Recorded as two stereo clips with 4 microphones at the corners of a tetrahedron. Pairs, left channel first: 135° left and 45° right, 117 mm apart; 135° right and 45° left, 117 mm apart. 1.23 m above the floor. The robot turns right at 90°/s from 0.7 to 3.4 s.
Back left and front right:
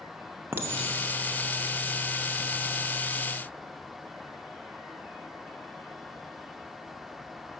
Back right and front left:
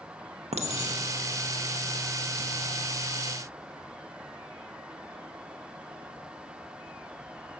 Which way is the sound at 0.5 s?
25° left.